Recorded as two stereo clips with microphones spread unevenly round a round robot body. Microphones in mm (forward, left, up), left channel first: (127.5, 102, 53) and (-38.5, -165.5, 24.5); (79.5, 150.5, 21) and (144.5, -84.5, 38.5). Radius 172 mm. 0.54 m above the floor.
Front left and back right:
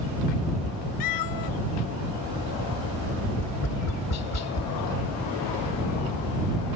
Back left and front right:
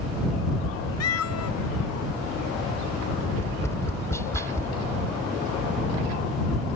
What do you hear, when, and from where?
1.0 s a cat meowing: 95° left
3.4 s tapping: 30° left